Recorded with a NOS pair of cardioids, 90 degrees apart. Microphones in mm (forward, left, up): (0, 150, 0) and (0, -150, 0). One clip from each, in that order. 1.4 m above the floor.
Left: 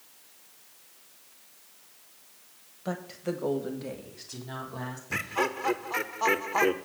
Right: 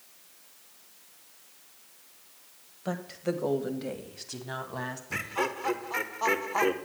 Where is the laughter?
10° left, 1.1 m.